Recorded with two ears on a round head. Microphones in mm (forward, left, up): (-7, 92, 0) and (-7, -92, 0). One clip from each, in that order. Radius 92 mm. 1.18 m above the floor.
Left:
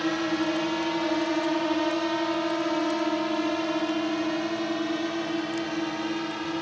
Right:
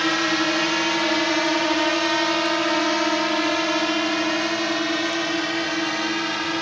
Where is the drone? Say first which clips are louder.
Right 6 dB; 60° right (ahead or behind).